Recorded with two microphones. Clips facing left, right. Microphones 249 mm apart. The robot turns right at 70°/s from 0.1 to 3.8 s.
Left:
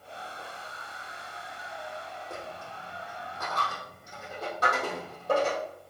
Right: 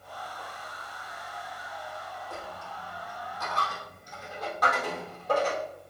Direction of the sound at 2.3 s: 50° left (ahead or behind).